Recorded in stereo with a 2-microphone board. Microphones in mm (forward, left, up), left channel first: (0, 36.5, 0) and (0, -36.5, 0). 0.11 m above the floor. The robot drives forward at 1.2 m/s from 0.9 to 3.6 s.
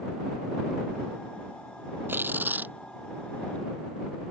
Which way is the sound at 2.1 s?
30° right (ahead or behind).